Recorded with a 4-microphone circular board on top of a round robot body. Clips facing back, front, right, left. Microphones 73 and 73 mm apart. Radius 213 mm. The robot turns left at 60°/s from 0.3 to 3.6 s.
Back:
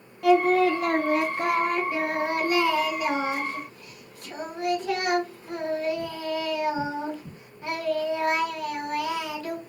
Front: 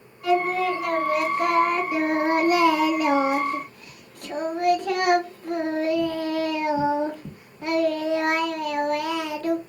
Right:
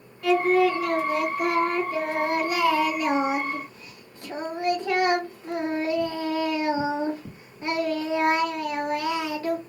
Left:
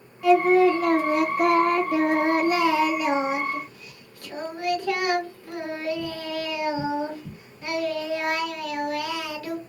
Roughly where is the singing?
Behind.